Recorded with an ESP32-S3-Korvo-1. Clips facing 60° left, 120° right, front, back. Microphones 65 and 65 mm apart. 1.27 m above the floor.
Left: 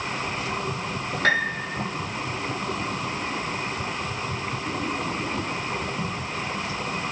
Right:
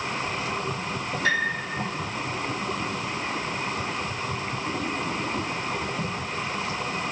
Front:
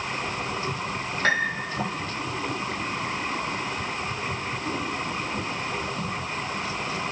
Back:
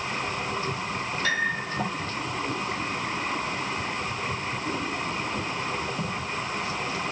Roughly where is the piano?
Ahead left.